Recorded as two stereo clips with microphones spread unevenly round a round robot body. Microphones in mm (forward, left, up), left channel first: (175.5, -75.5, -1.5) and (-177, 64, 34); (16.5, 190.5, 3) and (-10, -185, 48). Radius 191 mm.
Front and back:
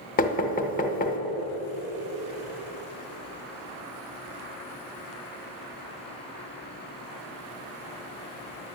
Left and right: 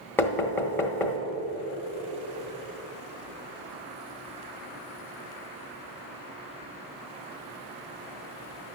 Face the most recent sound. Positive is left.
turn(degrees=15)